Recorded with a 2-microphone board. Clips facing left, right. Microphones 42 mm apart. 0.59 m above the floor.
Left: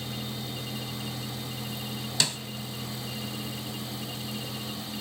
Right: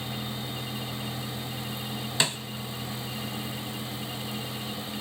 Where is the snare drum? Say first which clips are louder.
Right 2 dB; 25° right (ahead or behind), 1.2 m.